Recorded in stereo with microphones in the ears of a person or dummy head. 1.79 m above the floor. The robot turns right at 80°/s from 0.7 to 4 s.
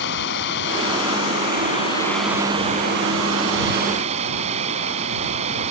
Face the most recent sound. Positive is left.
turn(degrees=-35)